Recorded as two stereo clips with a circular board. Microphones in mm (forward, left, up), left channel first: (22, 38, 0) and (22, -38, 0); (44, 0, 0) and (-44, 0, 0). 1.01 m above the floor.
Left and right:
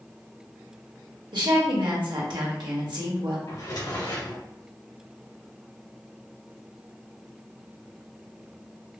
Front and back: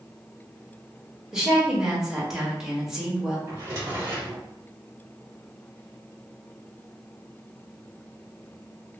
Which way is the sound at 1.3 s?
95° right.